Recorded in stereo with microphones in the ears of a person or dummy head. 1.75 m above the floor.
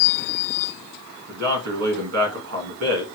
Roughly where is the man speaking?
Right.